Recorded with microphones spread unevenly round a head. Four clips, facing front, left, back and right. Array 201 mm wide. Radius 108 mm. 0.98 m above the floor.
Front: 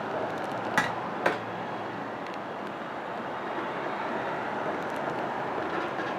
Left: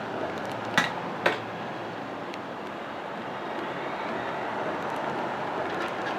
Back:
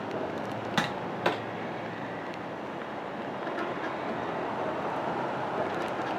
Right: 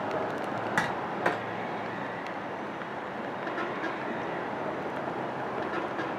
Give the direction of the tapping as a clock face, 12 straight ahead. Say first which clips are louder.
Left 4 dB, front 1 dB; 11 o'clock.